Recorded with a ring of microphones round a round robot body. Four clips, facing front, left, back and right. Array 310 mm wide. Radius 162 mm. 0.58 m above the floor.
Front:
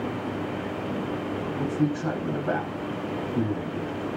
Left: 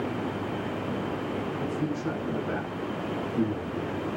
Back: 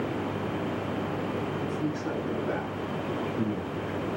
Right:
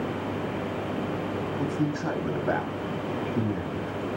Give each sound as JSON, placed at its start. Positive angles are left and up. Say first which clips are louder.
{"t": 1.6, "sound": "a man speaking", "louder": "right 2 dB, front 5 dB", "azimuth_deg": -55, "distance_m": 3.0}